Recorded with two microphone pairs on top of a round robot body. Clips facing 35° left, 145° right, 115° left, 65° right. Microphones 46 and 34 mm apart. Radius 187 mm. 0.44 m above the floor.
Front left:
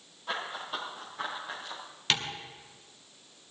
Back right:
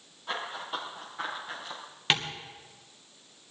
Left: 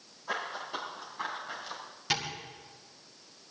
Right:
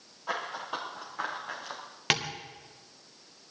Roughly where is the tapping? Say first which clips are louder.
Back right 2 dB, right 4 dB; right.